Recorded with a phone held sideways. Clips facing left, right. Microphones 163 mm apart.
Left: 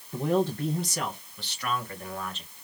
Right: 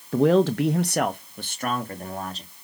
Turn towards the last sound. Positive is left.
turn(degrees=-35)  # may be behind; listen again after turning